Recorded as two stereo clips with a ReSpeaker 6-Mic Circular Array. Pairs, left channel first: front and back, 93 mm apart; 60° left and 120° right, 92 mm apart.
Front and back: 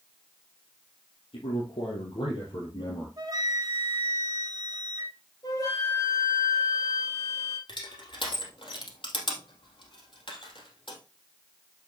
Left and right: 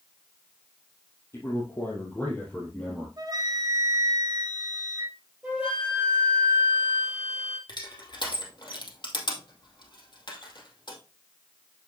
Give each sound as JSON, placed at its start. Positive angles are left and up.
{"t": 1.3, "sound": "a man speaking", "azimuth_deg": -5, "distance_m": 4.0}
{"t": 3.2, "sound": "a flute", "azimuth_deg": -145, "distance_m": 1.6}
{"t": 5.4, "sound": "a flute", "azimuth_deg": -45, "distance_m": 3.5}
{"t": 7.7, "sound": "crushing", "azimuth_deg": 25, "distance_m": 2.5}